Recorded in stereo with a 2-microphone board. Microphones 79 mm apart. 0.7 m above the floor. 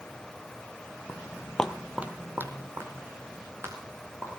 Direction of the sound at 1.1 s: 30° left (ahead or behind).